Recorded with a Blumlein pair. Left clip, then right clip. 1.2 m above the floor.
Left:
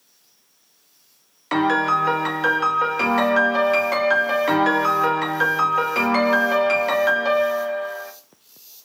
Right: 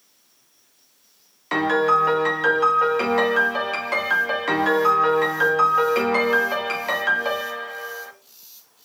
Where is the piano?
5° left, 0.7 m.